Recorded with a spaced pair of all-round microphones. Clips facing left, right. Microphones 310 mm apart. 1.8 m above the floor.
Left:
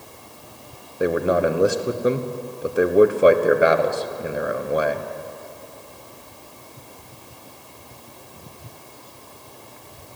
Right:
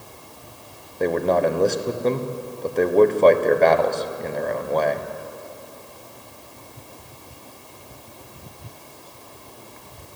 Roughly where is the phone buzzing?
No phone buzzing in this recording.